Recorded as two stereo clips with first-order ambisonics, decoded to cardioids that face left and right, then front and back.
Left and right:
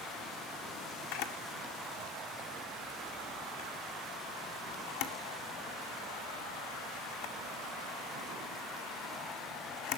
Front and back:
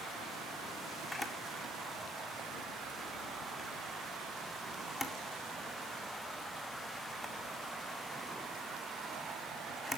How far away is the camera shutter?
About 2 m.